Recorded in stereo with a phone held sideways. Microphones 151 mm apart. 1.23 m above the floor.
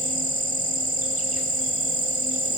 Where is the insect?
65° right (ahead or behind).